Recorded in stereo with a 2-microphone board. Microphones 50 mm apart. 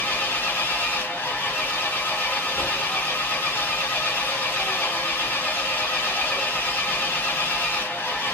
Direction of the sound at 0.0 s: 35° left (ahead or behind).